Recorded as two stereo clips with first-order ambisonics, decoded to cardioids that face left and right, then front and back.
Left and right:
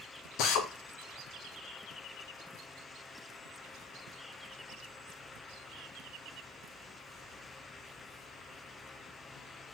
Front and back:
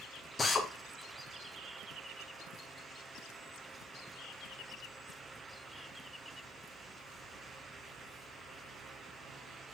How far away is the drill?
About 0.6 m.